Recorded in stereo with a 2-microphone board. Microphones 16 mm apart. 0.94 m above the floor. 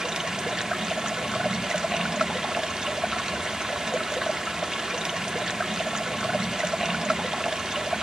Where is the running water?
50° right (ahead or behind), 0.7 m.